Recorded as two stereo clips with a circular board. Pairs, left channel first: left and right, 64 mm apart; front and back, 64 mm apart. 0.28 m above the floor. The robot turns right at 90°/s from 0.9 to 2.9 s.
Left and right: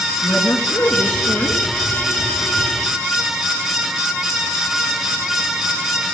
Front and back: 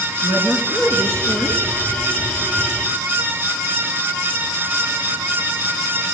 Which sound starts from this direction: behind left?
A woman speaking, at 0.2 s.